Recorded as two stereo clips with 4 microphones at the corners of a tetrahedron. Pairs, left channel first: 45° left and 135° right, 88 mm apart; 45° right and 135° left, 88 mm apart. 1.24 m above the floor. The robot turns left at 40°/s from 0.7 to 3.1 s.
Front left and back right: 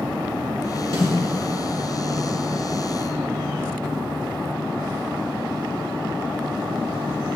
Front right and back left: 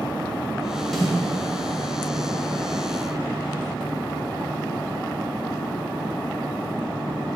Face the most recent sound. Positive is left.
turn(degrees=140)